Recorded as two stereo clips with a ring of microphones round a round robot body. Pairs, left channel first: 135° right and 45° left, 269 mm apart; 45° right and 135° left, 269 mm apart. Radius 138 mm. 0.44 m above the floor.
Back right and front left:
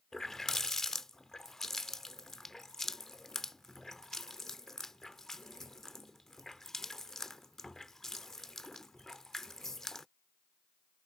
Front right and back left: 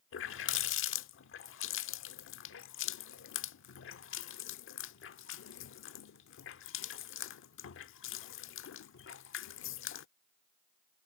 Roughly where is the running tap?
Ahead right.